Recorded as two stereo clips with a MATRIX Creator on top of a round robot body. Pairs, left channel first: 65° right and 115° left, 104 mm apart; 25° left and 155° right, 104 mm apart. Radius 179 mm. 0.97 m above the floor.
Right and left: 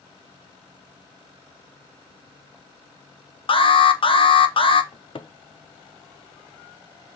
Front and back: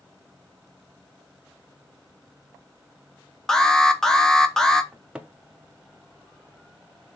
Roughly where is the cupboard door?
Right.